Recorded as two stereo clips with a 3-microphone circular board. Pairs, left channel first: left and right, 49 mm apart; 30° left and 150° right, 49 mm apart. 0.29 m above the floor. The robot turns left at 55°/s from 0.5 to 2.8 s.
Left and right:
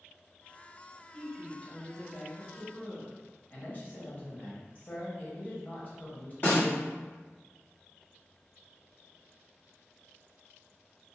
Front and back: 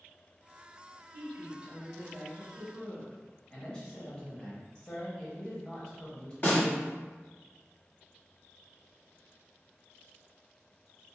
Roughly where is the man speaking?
Left.